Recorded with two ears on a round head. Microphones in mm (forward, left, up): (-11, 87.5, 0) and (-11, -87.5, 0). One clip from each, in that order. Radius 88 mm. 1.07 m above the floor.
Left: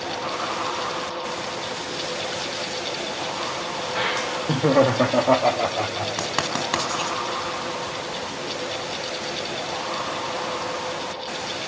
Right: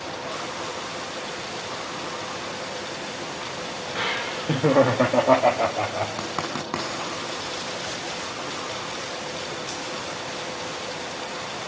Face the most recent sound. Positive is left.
turn(degrees=85)